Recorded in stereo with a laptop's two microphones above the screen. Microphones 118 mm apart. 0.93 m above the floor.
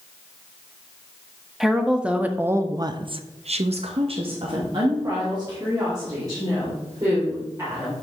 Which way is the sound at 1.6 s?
5° right (ahead or behind).